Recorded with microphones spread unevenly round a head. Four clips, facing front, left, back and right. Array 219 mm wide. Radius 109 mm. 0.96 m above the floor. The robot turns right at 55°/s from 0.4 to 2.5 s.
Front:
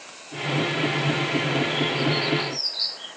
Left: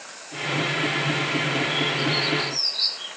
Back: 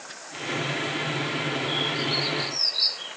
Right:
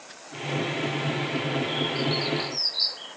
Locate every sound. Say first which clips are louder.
1.7 s a bird: left 2 dB, front 4 dB; 110° right, 5.5 m; by 3.1 s 65° right, 5.5 m